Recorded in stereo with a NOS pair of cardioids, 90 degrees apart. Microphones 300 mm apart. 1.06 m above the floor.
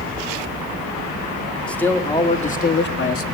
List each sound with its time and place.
1.7 s a man speaking: 5° left, 2 m; by 3.2 s 50° left, 1.6 m